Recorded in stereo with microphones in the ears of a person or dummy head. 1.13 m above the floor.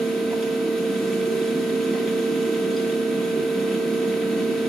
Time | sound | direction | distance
0.0 | a fan | 5° left (ahead or behind) | 1.2 m